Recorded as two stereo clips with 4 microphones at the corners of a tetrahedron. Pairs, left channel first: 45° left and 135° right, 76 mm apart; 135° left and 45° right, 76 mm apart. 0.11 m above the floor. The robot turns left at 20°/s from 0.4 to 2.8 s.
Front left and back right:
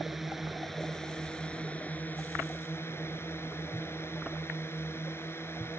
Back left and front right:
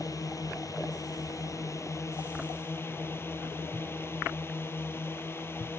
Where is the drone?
135° left; by 5.8 s 90° left.